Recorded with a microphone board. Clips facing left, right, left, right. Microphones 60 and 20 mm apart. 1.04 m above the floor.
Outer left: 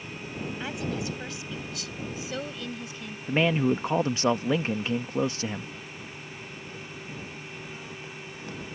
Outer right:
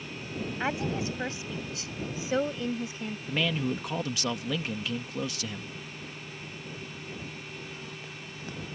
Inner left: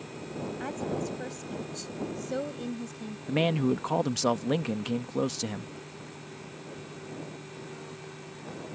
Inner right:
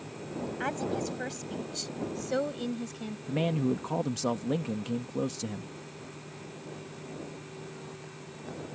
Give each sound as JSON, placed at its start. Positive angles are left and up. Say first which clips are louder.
{"t": 0.6, "sound": "a woman speaking", "louder": "outer right 3 dB, inner right 2 dB", "side_deg": -35}
{"t": 3.3, "sound": "a man speaking", "louder": "outer left 6 dB, inner left 3 dB", "side_deg": 35}